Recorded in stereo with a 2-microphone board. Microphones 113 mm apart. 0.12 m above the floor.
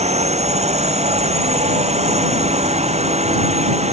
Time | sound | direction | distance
0.0 | a drone | 80° right | ?